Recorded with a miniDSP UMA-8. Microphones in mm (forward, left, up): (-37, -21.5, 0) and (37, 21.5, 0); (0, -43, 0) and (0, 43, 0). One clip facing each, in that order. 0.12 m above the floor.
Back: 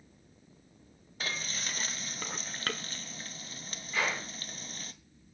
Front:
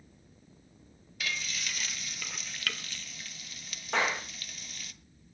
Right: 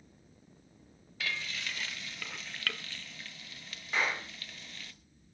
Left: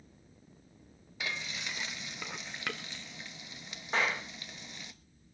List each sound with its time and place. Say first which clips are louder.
1.2 s frying: front 1 dB, right 1 dB; 160° left, 0.9 m
3.9 s a clap: front 3 dB, left 1 dB; 30° left, 9 m